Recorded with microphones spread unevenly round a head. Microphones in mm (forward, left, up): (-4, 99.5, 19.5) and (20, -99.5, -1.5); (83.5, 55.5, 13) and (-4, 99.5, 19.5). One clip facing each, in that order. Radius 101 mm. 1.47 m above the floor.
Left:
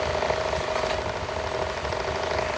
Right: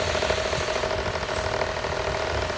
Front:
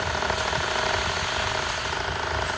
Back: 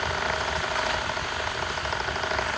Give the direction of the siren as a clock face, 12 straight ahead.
No siren in this recording.